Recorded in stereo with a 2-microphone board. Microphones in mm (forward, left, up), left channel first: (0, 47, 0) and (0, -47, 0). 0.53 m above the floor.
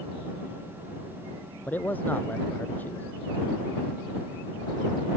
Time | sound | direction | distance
1.7 | a man speaking | 20° left (ahead or behind) | ?